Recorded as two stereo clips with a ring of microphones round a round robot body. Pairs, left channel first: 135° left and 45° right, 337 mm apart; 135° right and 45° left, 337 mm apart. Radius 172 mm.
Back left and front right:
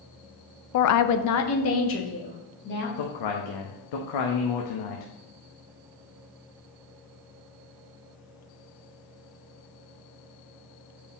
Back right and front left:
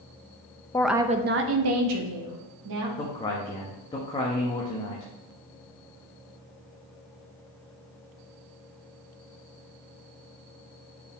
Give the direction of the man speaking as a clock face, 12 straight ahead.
7 o'clock.